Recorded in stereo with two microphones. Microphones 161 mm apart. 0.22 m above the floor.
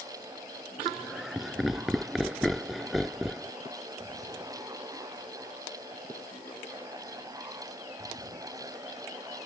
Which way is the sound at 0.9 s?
Centre (ahead or behind).